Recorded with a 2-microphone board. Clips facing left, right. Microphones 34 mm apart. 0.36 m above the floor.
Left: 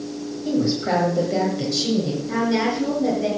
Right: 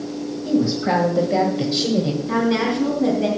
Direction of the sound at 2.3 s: 35° right (ahead or behind).